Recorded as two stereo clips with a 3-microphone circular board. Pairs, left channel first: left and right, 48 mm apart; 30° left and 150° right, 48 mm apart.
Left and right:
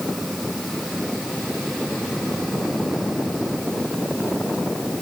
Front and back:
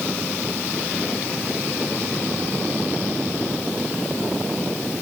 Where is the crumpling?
No crumpling in this recording.